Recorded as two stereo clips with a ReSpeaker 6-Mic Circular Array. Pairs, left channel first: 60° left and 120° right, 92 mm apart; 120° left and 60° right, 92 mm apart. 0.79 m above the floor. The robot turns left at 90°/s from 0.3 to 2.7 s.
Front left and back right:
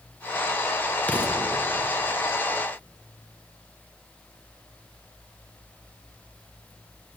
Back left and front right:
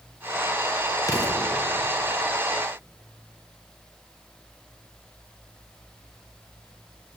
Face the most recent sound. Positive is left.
turn(degrees=-25)